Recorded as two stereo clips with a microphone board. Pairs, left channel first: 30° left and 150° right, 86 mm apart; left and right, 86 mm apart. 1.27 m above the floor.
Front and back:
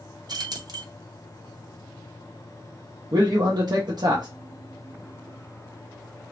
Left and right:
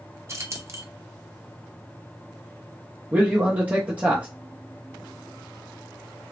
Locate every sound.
0.3 s keys jangling: 135° right, 0.6 m
3.1 s a man speaking: 160° right, 0.6 m